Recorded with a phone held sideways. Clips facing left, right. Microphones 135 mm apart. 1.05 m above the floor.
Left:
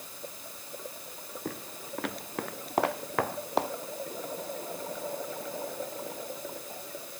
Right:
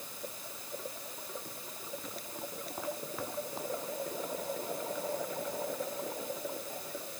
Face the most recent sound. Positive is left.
turn(degrees=80)